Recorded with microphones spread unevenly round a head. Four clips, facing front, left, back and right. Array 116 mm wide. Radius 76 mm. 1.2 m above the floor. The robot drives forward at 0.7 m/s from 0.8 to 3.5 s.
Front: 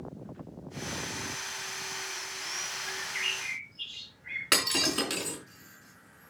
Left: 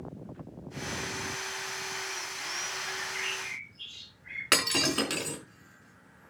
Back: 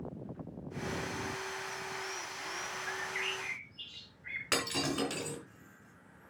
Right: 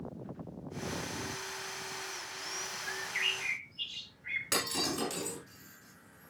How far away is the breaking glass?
About 5 m.